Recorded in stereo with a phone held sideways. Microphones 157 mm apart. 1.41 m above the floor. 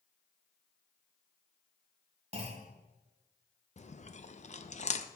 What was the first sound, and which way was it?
A clunk, 40° right (ahead or behind).